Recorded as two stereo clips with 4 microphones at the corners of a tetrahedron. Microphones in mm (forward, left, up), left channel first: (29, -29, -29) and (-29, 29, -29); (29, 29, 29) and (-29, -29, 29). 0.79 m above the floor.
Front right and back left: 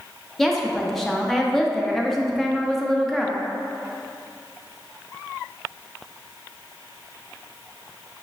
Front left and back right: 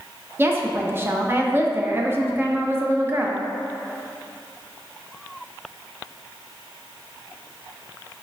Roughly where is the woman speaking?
Behind right.